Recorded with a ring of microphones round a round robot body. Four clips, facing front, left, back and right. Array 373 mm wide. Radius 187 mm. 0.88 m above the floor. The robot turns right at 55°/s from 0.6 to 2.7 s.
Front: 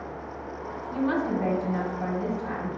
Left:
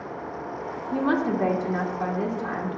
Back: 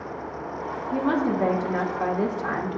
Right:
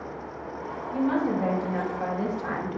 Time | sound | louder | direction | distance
0.9 | a woman speaking | left 1 dB, back 3 dB | 120° left | 1.2 m